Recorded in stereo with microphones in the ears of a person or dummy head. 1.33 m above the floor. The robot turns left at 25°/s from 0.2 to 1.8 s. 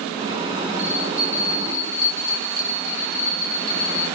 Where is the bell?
65° right (ahead or behind), 1.2 m; by 4.1 s 50° right (ahead or behind), 1.2 m.